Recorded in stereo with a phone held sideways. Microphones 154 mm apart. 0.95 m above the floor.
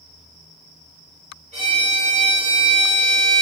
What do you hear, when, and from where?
1.5 s a violin: 50° right (ahead or behind), 1.1 m